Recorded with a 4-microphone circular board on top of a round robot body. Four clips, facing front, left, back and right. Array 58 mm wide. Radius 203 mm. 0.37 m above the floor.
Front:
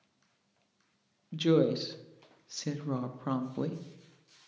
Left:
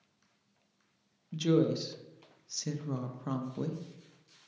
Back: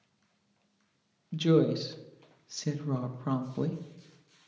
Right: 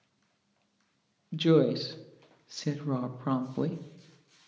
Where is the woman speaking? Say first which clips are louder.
Right 4 dB, back 1 dB; 75° right, 0.9 m.